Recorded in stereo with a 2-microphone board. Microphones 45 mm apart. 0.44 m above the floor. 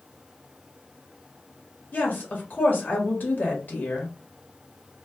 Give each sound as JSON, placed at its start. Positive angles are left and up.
{"t": 1.9, "sound": "a woman speaking", "side_deg": 50, "distance_m": 1.4}